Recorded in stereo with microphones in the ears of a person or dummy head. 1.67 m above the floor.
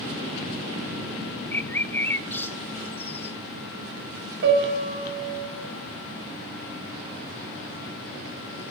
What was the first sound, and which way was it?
A bird, 10° left (ahead or behind).